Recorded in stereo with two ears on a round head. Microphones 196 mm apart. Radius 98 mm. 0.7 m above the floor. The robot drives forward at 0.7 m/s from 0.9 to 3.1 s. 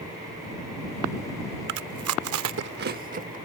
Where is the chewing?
55° right (ahead or behind); by 3.4 s 40° right (ahead or behind).